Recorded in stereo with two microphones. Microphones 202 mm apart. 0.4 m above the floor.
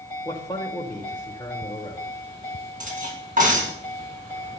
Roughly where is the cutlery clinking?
Right.